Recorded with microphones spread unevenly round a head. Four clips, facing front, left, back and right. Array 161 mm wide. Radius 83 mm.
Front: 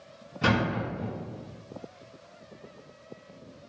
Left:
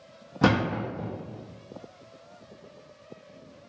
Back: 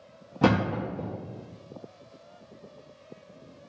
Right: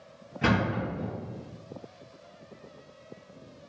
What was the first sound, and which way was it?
A thud, 135° left.